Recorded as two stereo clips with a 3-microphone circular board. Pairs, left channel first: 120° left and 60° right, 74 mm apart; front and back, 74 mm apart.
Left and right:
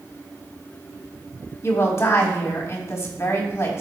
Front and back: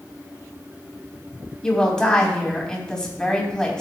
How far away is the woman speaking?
About 2.5 m.